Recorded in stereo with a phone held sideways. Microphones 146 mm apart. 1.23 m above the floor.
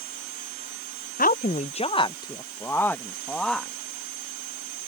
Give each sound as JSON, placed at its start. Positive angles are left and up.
{"t": 1.2, "sound": "a woman speaking", "side_deg": 75}